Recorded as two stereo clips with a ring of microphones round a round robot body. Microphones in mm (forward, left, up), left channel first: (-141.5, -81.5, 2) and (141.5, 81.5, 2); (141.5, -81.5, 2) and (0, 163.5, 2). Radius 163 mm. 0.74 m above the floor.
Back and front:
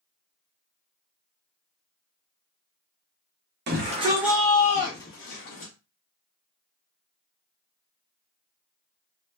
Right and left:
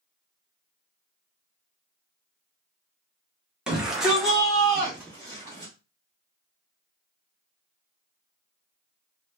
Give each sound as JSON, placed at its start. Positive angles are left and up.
{"t": 3.7, "sound": "a shout", "azimuth_deg": 35, "distance_m": 0.9}